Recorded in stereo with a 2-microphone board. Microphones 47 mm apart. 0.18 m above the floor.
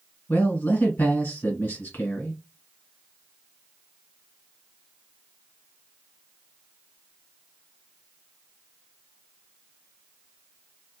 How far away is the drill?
I don't hear a drill.